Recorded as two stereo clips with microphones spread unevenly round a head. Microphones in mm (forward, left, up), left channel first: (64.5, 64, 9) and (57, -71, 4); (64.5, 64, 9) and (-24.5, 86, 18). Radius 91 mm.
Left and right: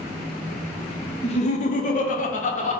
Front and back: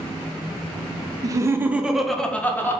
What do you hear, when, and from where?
1.2 s laughter: 130° left, 0.6 m; by 2.8 s 55° left, 0.9 m